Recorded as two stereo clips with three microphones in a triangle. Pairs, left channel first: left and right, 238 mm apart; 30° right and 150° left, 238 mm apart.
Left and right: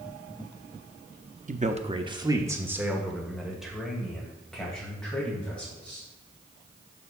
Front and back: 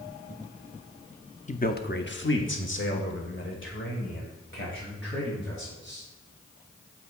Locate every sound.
1.5 s a man speaking: 65° right, 0.7 m; by 6.1 s 5° left, 3.5 m